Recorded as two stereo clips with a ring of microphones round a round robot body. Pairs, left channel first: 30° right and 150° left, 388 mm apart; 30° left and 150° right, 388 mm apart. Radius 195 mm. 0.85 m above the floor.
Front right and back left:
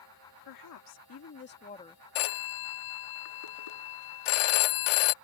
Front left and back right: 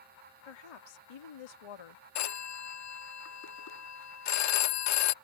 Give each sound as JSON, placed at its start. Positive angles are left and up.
{"t": 0.5, "sound": "a woman speaking", "azimuth_deg": 10}
{"t": 2.1, "sound": "a phone ringing", "azimuth_deg": -20}